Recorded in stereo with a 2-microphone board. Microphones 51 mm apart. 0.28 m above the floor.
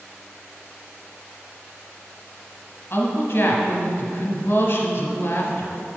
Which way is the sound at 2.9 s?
50° left (ahead or behind).